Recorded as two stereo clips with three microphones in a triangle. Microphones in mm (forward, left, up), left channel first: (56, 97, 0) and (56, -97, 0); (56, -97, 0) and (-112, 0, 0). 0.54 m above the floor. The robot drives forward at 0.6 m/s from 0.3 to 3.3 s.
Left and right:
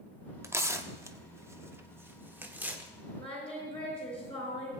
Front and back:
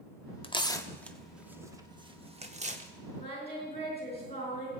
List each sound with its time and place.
0.4 s tearing paper: 30° right, 0.9 m; by 2.9 s 170° right, 1.4 m
3.2 s singing: 30° left, 4.5 m